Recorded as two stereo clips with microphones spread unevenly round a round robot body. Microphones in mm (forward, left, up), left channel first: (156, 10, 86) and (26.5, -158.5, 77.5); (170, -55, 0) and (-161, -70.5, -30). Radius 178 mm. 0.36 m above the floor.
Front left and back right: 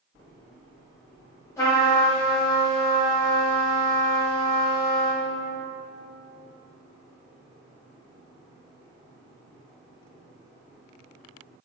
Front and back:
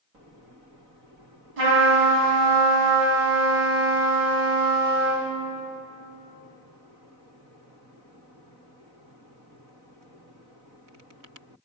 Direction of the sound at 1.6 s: 130° left.